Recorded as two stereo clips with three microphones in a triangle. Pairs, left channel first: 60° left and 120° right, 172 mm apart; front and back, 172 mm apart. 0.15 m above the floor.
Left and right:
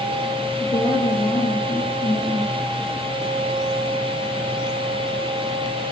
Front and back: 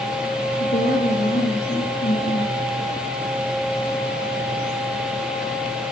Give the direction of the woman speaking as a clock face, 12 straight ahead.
12 o'clock.